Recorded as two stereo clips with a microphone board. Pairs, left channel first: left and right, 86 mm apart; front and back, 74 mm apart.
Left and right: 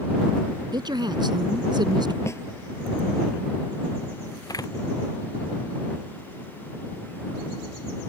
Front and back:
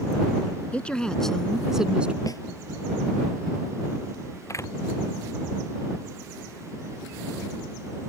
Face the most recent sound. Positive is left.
turn(degrees=45)